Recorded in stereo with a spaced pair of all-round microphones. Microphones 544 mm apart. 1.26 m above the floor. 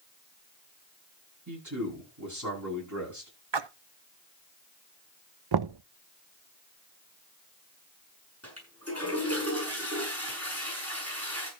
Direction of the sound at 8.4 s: 25° right (ahead or behind).